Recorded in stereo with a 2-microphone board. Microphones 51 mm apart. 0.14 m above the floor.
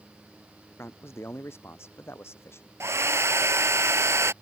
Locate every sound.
0.8 s a man speaking: 55° left (ahead or behind)
2.8 s a hair dryer: 70° right (ahead or behind)